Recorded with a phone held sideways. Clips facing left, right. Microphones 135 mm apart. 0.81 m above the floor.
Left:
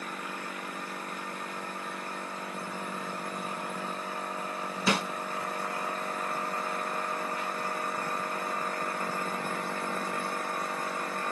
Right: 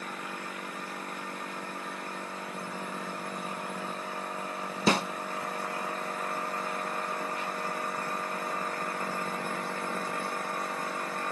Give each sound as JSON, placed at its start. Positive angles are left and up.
{"t": 4.9, "sound": "a snare drum", "side_deg": -35, "distance_m": 0.5}